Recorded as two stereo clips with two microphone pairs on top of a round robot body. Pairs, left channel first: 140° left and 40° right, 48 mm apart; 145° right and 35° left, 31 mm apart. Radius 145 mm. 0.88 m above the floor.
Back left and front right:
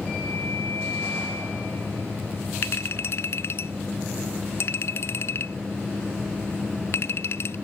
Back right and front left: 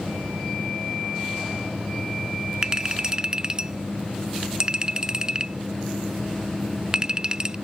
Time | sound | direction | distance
2.6 | a clink | 100° left | ?